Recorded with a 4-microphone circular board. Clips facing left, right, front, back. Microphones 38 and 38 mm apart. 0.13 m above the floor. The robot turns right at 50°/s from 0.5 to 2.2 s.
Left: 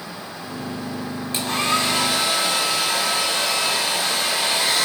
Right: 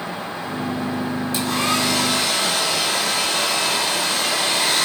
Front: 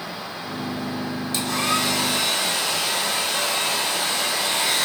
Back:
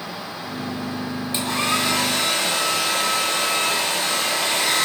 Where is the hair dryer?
125° left, 1.5 m; by 4.9 s 170° left, 1.5 m.